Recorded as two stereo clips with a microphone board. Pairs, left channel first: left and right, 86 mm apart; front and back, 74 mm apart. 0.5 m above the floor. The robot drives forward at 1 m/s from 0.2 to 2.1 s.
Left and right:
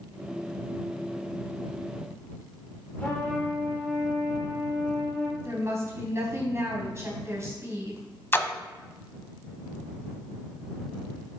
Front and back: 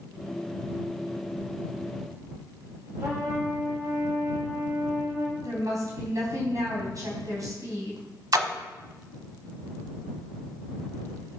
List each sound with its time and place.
3.0 s a trumpet: 155° left, 1.9 m
5.4 s a woman speaking: 145° right, 3 m
8.3 s a splash: 150° left, 0.7 m